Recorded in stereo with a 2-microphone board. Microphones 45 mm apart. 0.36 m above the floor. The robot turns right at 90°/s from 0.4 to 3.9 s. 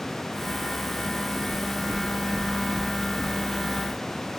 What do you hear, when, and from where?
1.5 s knocking: 70° left (ahead or behind), 5 m; by 3.4 s 60° right (ahead or behind), 5 m